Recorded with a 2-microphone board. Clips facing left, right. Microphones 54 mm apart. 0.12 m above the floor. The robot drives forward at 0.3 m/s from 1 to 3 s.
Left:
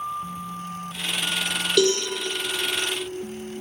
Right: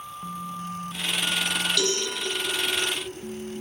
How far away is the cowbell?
About 1.7 m.